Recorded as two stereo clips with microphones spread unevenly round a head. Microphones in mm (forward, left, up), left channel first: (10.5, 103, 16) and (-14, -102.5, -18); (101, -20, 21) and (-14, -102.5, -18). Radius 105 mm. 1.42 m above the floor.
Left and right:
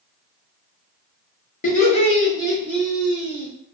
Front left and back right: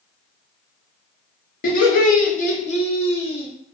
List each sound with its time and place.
1.6 s laughter: 35° left, 1.2 m; by 3.5 s 15° right, 1.5 m